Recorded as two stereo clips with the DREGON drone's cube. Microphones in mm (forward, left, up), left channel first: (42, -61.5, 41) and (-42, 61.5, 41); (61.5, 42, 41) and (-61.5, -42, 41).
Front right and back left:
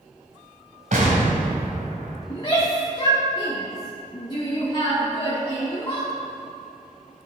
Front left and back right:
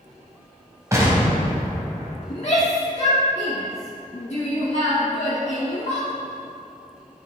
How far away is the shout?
About 1.2 m.